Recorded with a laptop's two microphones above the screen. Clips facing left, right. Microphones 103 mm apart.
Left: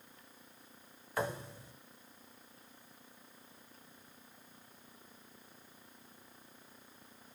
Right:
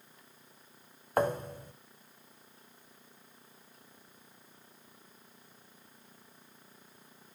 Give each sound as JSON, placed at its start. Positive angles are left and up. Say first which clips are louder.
{"t": 1.2, "sound": "a thud", "louder": "right 8 dB", "side_deg": -50, "distance_m": 1.0}